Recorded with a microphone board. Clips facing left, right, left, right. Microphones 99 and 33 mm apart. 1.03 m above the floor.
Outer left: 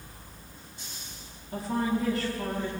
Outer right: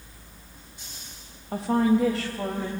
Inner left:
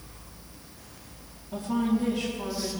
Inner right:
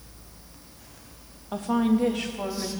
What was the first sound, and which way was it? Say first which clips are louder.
A woman speaking: outer right 7 dB, inner right 3 dB; 70° right (ahead or behind).